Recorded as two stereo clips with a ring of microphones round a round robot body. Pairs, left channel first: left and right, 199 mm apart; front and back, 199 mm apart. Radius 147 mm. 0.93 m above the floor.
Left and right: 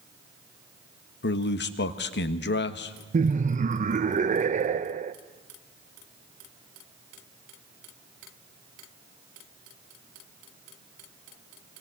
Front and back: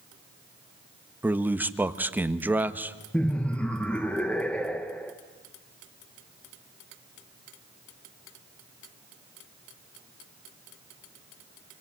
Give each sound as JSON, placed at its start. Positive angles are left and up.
{"t": 1.2, "sound": "a man speaking", "azimuth_deg": 100, "distance_m": 1.4}
{"t": 3.1, "sound": "laughter", "azimuth_deg": -80, "distance_m": 0.7}